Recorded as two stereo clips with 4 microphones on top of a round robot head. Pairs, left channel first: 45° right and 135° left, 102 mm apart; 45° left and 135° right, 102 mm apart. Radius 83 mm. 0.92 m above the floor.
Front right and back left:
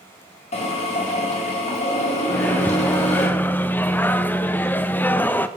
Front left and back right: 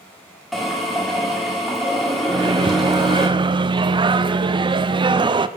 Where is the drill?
45° right, 2 m.